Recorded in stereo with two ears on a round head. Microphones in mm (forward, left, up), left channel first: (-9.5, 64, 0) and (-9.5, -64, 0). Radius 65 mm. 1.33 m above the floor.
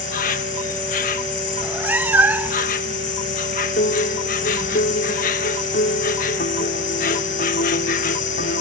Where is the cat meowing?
10° right (ahead or behind).